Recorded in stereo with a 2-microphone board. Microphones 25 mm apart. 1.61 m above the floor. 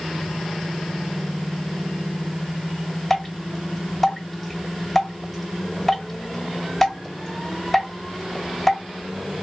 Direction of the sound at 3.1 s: 5° left (ahead or behind).